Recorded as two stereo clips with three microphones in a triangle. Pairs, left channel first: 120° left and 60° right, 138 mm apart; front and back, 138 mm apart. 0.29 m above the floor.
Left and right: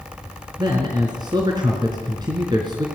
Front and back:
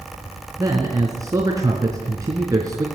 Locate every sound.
0.6 s a man speaking: 115° right, 3.5 m